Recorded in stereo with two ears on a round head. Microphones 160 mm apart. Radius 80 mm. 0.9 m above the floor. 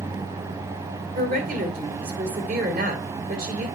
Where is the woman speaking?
50° right (ahead or behind), 2.5 m.